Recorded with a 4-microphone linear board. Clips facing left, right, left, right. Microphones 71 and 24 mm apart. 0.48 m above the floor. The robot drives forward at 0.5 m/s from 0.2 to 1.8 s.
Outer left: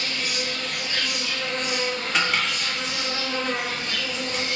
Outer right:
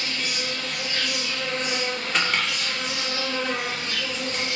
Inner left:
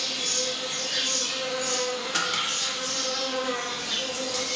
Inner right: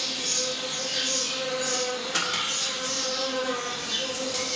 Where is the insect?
65° left (ahead or behind), 1.4 m; by 4.6 s 55° left (ahead or behind), 1.5 m.